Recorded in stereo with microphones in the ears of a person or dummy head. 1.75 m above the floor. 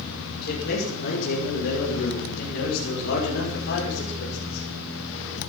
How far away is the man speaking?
About 7 m.